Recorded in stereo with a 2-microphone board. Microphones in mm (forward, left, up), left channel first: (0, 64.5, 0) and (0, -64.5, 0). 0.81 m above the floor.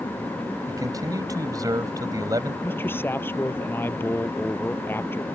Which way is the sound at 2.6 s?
15° left (ahead or behind).